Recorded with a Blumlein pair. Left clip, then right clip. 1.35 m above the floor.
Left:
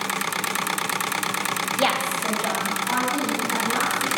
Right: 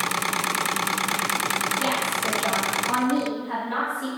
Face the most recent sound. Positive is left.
turn(degrees=-35)